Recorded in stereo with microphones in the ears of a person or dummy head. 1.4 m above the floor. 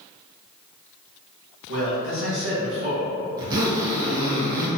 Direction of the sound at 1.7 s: 75° right (ahead or behind).